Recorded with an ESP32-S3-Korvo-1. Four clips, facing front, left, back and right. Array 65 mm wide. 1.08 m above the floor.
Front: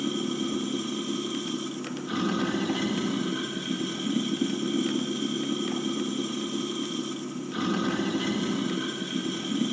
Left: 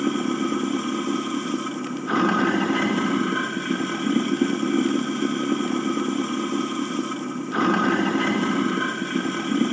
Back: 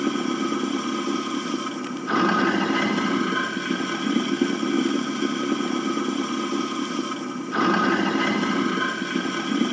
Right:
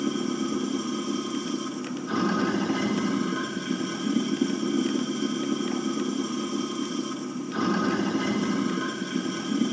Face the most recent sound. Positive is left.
turn(degrees=135)